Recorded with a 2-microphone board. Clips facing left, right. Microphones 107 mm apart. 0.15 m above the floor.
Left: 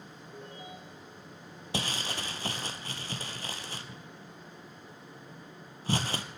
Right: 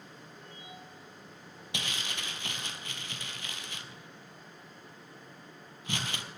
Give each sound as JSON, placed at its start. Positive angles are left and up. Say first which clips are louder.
{"t": 0.3, "sound": "a ringtone", "louder": "left 7 dB", "side_deg": 60, "distance_m": 4.0}
{"t": 1.7, "sound": "crumpling", "louder": "left 5 dB", "side_deg": 40, "distance_m": 1.1}